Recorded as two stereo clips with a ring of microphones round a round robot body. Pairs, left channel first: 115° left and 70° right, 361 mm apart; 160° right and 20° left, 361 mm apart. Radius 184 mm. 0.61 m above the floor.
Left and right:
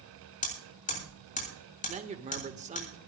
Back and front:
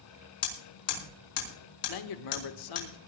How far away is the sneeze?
I don't hear a sneeze.